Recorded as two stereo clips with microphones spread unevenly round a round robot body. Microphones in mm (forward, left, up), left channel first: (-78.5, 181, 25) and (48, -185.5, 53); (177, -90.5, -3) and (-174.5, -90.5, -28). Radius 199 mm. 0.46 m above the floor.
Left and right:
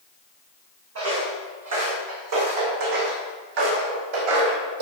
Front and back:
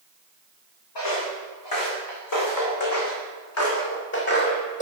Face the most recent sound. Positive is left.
turn(degrees=-70)